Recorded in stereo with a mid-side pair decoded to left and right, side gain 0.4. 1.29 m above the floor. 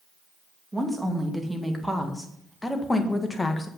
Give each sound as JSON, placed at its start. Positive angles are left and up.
{"t": 0.7, "sound": "a woman speaking", "azimuth_deg": -10, "distance_m": 2.5}